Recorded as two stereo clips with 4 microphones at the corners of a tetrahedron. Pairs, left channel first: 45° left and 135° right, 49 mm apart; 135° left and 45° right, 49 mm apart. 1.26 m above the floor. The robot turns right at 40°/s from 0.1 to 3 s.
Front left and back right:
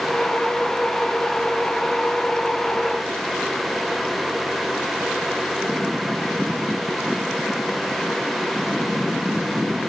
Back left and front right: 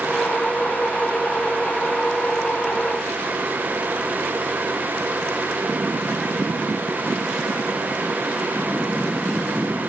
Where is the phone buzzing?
No phone buzzing in this recording.